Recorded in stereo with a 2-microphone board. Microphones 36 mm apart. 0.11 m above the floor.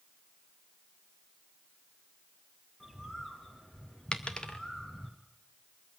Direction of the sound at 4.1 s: 25° left (ahead or behind).